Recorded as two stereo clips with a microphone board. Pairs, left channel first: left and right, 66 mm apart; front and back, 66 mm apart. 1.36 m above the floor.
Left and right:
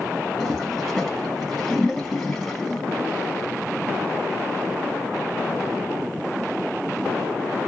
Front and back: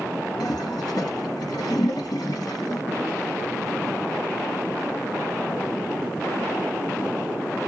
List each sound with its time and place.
0.4 s a toilet flushing: 5° left, 1.8 m